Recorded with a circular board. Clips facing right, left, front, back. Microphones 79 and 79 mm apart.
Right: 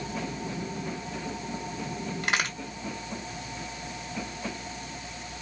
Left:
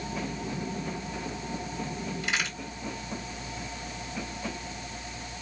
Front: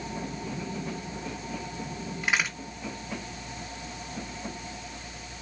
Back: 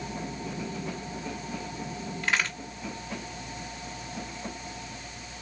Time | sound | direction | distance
2.2 | a crack | 75° right | 1.2 m